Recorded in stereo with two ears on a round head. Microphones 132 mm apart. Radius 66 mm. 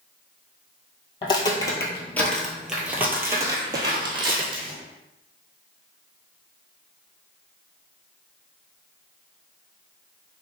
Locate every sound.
1.2 s footsteps: 30° left (ahead or behind), 1.2 m; by 4.8 s 35° right (ahead or behind), 1.7 m